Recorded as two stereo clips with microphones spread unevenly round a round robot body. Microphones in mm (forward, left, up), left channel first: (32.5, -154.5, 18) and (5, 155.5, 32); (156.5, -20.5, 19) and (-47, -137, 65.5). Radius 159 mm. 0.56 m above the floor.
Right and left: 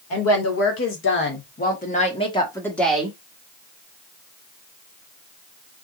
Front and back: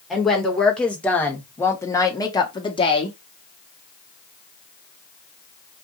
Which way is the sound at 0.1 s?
55° right.